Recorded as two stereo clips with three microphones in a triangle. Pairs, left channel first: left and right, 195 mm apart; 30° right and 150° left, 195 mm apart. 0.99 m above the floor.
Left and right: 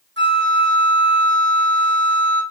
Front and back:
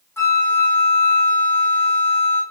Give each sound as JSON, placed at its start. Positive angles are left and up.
{"t": 0.2, "sound": "a flute", "azimuth_deg": -110, "distance_m": 2.0}